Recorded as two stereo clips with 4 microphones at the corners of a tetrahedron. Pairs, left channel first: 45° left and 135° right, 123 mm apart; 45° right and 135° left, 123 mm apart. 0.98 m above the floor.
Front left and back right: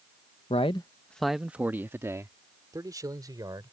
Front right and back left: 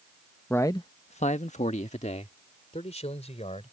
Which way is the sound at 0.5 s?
30° left.